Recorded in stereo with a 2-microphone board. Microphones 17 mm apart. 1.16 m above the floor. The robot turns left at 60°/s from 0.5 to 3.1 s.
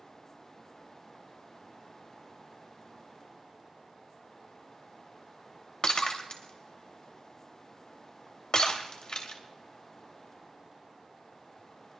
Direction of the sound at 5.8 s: 55° left (ahead or behind).